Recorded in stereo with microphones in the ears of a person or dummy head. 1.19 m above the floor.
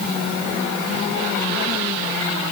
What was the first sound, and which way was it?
Only background noise.